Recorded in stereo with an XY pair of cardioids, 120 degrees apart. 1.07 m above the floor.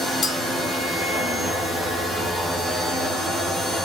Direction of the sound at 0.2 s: 40° left.